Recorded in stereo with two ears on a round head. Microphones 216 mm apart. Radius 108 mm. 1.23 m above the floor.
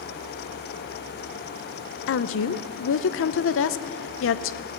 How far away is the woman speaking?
About 0.6 m.